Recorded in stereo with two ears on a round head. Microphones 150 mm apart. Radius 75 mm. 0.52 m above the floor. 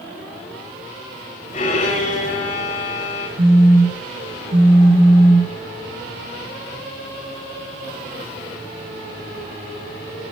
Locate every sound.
1.5 s a violin: 45° left (ahead or behind), 6.5 m
3.4 s a phone buzzing: 45° right (ahead or behind), 2 m